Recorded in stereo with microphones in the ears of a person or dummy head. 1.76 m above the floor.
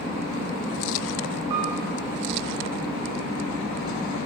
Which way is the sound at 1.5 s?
40° right (ahead or behind).